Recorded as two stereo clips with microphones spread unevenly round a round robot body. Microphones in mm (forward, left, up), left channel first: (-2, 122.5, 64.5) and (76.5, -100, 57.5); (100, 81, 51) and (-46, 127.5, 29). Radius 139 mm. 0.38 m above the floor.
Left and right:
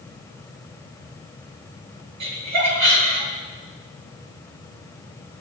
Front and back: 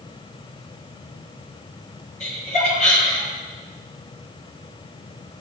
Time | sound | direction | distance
2.2 | laughter | 85° right | 9.5 m